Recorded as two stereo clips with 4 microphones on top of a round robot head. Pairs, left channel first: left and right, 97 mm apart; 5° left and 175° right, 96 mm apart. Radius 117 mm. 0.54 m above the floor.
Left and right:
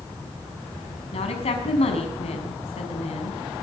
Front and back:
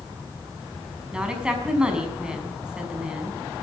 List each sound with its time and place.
1.1 s a woman speaking: 105° left, 5.5 m